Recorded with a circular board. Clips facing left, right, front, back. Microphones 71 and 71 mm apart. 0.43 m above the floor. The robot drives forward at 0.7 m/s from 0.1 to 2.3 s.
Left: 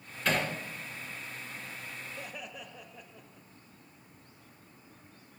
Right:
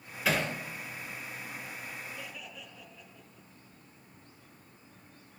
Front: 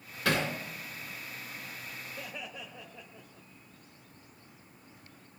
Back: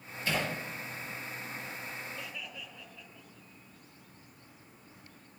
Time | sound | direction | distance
0.2 | hammering | 5° right | 3.5 m
2.2 | laughter | 50° left | 1.9 m